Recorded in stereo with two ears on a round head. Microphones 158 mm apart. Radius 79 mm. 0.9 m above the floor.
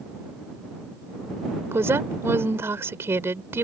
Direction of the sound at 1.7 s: 15° right (ahead or behind).